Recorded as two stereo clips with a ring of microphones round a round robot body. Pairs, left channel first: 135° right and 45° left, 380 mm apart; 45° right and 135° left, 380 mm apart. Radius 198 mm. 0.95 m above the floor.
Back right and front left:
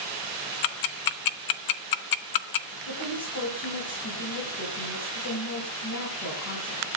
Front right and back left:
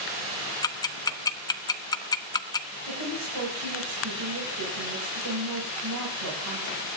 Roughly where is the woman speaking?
Behind.